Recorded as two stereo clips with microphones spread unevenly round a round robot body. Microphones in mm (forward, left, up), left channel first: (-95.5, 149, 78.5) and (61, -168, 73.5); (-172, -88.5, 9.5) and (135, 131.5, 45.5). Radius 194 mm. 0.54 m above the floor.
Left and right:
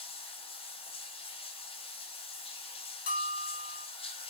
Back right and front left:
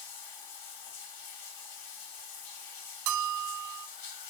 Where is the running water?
170° right, 3 m.